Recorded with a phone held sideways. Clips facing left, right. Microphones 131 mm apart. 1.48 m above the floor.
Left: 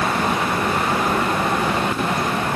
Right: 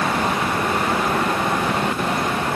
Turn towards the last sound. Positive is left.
No sound to turn to.